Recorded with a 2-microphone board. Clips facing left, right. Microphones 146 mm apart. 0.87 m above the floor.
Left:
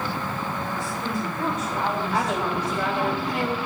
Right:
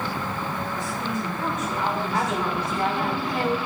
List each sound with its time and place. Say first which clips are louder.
0.8 s a woman speaking: even; 35° left (ahead or behind), 4 m
2.1 s a woman speaking: even; 85° left, 4.5 m